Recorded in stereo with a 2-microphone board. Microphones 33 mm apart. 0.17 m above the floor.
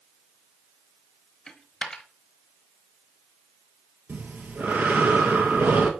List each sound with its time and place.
1.5 s a dropped coin: 15° left (ahead or behind), 1.1 m
4.1 s breathing: 75° right (ahead or behind), 1.5 m